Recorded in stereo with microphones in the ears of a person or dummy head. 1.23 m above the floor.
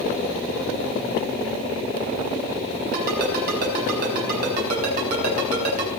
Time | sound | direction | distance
2.9 | a ringtone | 60° right (ahead or behind) | 5 m